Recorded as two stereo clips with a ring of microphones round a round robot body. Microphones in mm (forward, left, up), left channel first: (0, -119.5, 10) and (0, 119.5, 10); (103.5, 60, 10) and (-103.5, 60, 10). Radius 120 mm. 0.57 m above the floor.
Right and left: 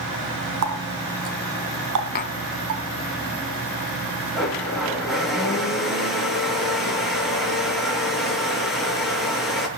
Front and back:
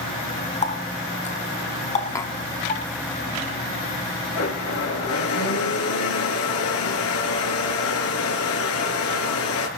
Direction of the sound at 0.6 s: 55° left.